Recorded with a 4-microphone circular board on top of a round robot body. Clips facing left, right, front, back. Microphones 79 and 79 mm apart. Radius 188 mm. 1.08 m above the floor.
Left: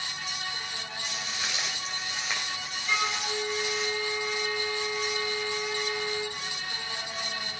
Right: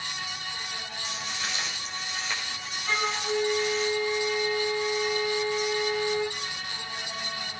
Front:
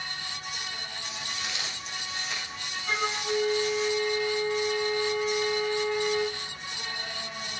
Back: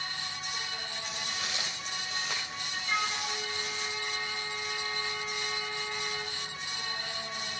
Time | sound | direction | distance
1.0 | footsteps | 175° left | 8.5 m
2.9 | a flute | 40° right | 0.9 m